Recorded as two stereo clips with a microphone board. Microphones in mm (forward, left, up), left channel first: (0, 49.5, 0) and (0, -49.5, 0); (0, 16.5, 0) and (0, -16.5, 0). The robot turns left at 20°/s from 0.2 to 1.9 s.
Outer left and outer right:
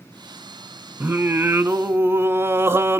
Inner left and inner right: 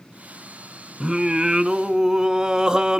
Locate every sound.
1.0 s singing: 25° right (ahead or behind), 0.7 m